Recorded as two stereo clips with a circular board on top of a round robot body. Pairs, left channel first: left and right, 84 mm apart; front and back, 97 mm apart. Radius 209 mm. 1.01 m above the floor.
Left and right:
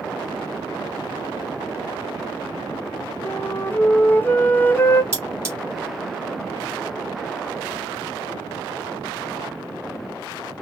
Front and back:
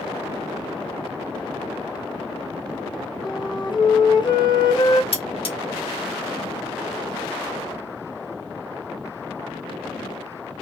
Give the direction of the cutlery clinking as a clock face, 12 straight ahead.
1 o'clock.